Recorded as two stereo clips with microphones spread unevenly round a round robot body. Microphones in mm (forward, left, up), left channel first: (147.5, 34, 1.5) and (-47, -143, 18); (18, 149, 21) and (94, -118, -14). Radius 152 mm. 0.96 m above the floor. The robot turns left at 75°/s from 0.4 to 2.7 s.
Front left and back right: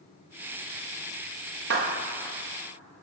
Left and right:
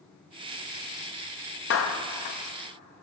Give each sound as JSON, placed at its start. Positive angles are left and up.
{"t": 1.7, "sound": "a clap", "azimuth_deg": 165, "distance_m": 1.0}